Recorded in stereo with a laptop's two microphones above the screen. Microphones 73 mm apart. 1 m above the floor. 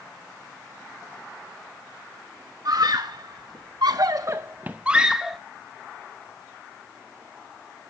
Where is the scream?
55° right (ahead or behind), 1.2 m; by 5.4 s 5° right (ahead or behind), 1.1 m.